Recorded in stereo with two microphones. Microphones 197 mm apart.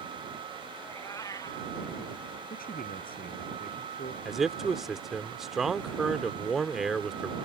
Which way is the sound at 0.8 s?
15° left (ahead or behind).